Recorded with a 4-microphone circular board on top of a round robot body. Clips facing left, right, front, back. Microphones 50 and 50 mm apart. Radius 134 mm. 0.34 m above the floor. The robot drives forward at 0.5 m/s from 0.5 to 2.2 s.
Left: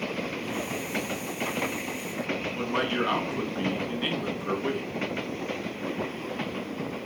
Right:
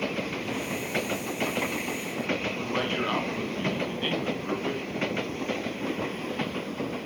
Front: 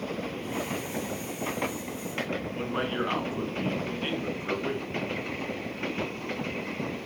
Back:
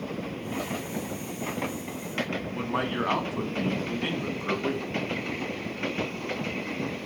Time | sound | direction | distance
2.5 | a man speaking | 175° left | 4 m